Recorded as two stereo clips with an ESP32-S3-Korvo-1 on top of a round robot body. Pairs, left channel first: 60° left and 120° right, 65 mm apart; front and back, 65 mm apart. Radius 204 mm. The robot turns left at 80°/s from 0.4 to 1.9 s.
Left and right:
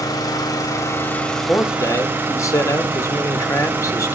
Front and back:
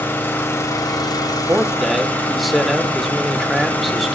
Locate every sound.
0.0 s an engine running: 60° left, 3.5 m; by 4.2 s 60° right, 3.5 m
1.3 s a man speaking: 135° left, 2.0 m; by 4.2 s 90° left, 2.0 m